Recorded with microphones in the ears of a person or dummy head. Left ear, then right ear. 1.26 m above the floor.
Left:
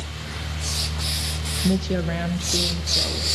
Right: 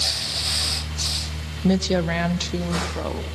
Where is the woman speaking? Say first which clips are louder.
Right 6 dB; 30° right (ahead or behind), 1.0 m; by 3.3 s 40° right (ahead or behind), 3 m.